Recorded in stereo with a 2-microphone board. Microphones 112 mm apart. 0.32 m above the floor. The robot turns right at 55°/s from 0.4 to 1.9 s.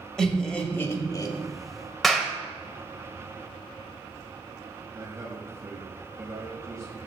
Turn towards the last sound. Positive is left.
turn(degrees=-25)  # may be behind; listen again after turning